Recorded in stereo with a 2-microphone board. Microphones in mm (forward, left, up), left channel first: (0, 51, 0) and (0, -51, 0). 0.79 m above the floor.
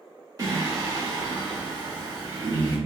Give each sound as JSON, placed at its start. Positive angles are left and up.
{"t": 0.4, "sound": "singing", "side_deg": -35, "distance_m": 0.9}